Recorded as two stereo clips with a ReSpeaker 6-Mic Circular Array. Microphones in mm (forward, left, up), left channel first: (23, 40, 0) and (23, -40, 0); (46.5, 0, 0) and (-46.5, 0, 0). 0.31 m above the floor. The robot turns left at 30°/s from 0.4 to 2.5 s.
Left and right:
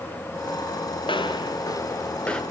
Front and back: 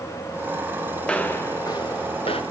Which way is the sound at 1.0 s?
80° left.